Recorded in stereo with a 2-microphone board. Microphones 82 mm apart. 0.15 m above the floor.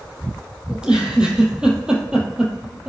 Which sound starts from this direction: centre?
A giggle, at 0.7 s.